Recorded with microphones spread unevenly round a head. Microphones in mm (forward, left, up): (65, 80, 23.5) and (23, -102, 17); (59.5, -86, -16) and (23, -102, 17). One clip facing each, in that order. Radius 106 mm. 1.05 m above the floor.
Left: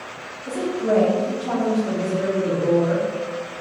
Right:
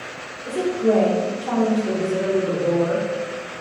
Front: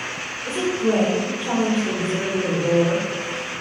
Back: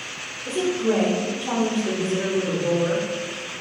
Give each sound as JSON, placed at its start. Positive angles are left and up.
{"t": 0.5, "sound": "a woman speaking", "azimuth_deg": 160, "distance_m": 1.4}